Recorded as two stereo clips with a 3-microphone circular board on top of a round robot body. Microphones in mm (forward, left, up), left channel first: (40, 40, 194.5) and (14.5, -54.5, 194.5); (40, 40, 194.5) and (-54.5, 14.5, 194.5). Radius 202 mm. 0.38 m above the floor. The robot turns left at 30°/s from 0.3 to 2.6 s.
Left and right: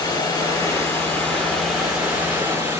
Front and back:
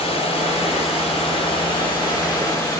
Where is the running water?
30° left, 3 m; by 2.8 s 40° right, 3 m.